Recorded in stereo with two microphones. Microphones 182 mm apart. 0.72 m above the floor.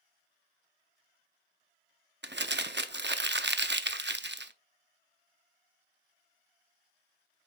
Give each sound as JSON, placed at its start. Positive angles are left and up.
{"t": 2.2, "sound": "crumpling", "side_deg": -75, "distance_m": 0.6}